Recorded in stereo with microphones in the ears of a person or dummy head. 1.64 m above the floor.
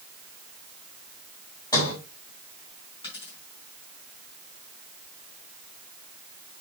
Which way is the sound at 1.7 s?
20° left (ahead or behind).